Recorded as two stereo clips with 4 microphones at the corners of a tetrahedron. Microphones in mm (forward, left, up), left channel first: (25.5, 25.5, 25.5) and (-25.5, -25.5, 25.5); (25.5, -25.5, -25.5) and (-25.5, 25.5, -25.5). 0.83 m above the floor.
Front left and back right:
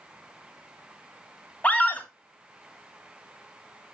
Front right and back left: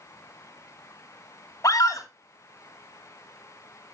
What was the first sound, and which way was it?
A scream, 20° right.